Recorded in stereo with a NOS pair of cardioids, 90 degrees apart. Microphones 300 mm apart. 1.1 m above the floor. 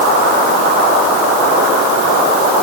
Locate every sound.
Only background noise.